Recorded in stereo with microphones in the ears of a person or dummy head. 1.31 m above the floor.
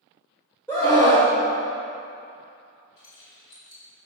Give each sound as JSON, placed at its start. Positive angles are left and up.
{"t": 0.7, "sound": "a scream", "side_deg": 15, "distance_m": 1.0}
{"t": 3.0, "sound": "keys jangling", "side_deg": 50, "distance_m": 2.0}